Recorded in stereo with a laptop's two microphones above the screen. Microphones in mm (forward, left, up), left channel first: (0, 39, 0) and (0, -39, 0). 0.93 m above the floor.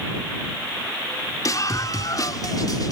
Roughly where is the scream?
Left.